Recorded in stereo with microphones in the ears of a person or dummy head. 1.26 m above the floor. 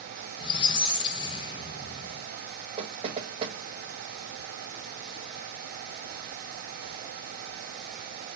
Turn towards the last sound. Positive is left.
turn(degrees=-25)  # may be behind; listen again after turning